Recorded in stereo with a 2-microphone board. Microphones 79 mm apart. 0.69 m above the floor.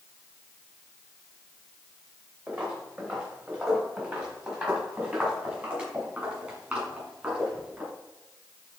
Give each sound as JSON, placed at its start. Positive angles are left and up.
{"t": 2.5, "sound": "footsteps", "side_deg": -25, "distance_m": 3.0}